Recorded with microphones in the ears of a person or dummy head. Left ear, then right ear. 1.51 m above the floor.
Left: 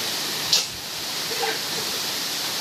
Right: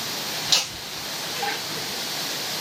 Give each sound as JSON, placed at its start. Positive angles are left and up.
{"t": 0.4, "sound": "laughter", "side_deg": -40, "distance_m": 0.9}